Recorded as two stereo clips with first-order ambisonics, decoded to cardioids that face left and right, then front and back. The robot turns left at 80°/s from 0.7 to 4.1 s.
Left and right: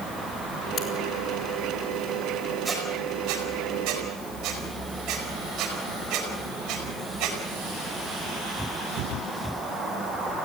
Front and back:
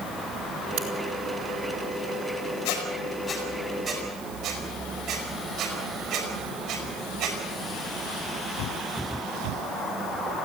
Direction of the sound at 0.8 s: 140° left.